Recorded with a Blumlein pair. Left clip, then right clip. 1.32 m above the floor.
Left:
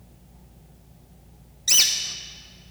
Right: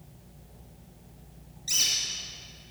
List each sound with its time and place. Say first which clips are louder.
1.7 s a bird: left 6 dB; 60° left, 0.8 m